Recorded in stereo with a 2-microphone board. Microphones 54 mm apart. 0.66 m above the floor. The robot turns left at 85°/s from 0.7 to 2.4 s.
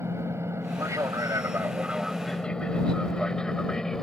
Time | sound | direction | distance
0.0 | an aircraft | 55° right (ahead or behind) | ?